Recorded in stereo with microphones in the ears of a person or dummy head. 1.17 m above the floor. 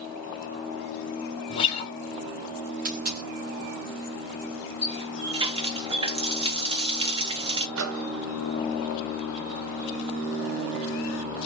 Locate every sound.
1.5 s a guitar: 25° left (ahead or behind), 0.8 m
2.9 s a dropped coin: 45° right (ahead or behind), 0.7 m
4.8 s a running tap: 20° right (ahead or behind), 0.6 m
7.8 s a microwave: 75° right (ahead or behind), 0.8 m